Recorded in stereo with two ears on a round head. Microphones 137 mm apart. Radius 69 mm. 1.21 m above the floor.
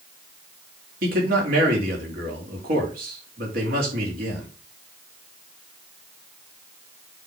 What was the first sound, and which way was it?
A man speaking, 65° right (ahead or behind).